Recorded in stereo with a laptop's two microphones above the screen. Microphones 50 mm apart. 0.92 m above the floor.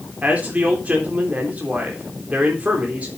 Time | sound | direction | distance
0.2 | a man speaking | 30° right (ahead or behind) | 3.5 m